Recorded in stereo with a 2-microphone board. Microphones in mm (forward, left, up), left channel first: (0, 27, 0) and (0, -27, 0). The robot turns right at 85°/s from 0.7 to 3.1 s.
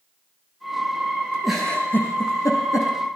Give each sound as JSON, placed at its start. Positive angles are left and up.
{"t": 1.4, "sound": "a giggle", "side_deg": -5, "distance_m": 6.0}